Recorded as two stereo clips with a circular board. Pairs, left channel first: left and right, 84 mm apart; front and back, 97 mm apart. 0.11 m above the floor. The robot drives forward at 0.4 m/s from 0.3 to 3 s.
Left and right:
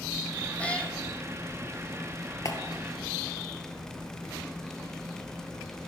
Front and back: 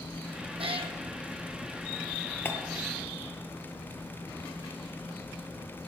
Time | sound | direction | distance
0.6 | a cat meowing | 165° left | 1.5 m
2.5 | a clap | 60° left | 2 m